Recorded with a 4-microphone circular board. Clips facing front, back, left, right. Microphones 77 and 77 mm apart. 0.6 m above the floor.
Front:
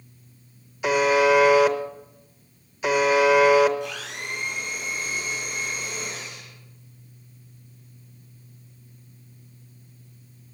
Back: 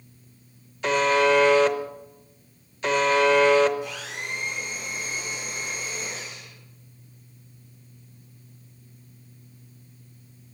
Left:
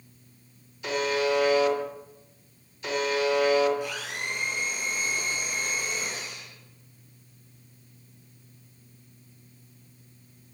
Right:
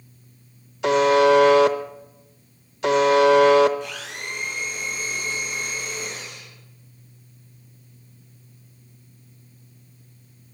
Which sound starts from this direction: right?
A buzzer, at 0.8 s.